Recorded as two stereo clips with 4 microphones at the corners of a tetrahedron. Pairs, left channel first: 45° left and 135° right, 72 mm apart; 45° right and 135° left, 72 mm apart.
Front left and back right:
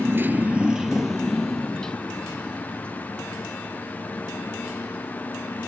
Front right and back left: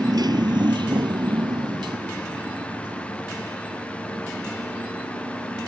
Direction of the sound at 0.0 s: 170° left.